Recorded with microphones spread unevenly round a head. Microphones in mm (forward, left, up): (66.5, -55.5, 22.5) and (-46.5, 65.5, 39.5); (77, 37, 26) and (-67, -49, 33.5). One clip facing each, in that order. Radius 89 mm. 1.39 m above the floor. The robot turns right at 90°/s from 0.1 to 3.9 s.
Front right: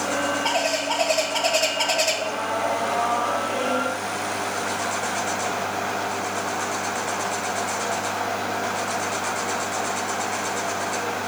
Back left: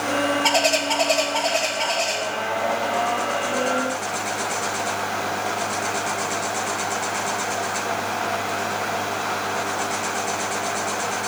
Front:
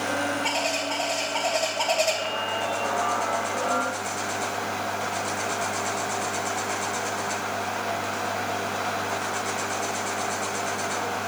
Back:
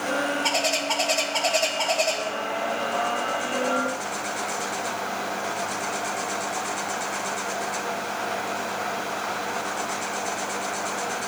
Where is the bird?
165° left, 0.9 m; by 2.2 s 35° right, 0.9 m.